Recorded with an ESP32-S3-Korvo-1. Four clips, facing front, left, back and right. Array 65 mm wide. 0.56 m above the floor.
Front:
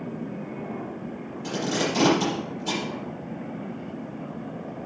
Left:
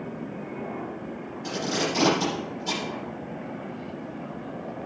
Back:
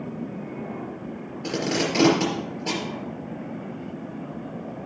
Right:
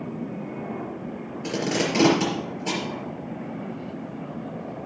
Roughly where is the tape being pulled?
Behind right.